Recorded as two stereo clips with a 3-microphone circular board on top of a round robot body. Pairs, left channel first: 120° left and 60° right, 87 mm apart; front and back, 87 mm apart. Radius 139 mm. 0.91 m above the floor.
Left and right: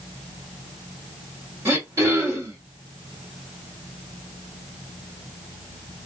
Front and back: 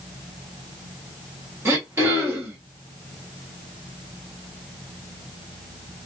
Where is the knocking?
No knocking in this recording.